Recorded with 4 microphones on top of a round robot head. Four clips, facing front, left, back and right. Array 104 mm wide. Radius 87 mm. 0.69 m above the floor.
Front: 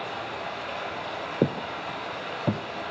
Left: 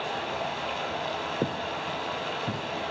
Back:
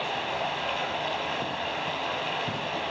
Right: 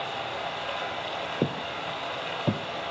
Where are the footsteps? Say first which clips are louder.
Even, front 4 dB; 10° right, 1.2 m; by 2.6 s 40° right, 1.5 m.